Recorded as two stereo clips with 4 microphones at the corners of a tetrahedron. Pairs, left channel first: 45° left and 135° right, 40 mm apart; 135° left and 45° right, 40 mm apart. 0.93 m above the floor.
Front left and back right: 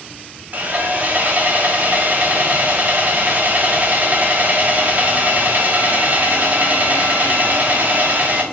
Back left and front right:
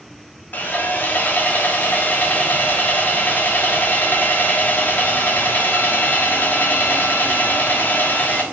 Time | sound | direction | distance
0.5 | sawing | straight behind | 1.1 m